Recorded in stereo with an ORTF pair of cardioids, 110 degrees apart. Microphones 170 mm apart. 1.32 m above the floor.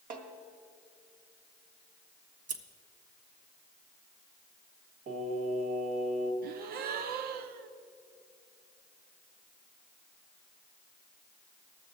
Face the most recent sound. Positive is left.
turn(degrees=-65)